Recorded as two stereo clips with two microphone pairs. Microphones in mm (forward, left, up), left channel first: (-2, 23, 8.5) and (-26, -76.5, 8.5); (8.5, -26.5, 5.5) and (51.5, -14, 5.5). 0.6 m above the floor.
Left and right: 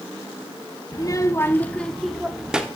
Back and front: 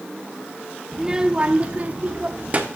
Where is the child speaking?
90° left, 0.7 m; by 2.7 s 25° right, 1.1 m.